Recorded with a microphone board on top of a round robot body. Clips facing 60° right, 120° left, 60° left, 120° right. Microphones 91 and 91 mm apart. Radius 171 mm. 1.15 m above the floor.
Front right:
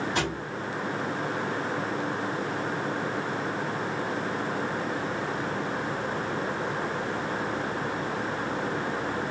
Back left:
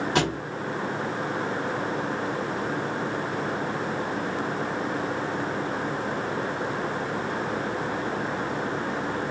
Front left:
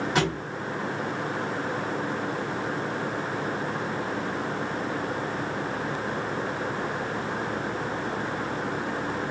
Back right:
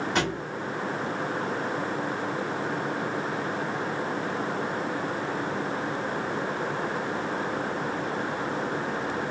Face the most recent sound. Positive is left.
turn(degrees=145)